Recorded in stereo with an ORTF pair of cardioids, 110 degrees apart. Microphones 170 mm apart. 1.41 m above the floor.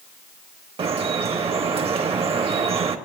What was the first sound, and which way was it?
Dripping, 35° right.